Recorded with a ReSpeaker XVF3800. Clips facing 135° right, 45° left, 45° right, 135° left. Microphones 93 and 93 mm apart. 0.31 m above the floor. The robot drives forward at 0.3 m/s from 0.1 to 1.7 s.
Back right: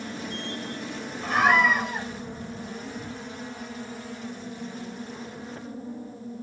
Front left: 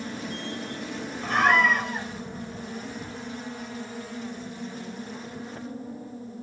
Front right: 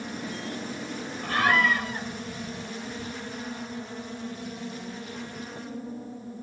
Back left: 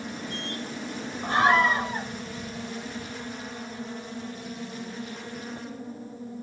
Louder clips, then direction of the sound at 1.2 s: Even, back left 3 dB; 140° left.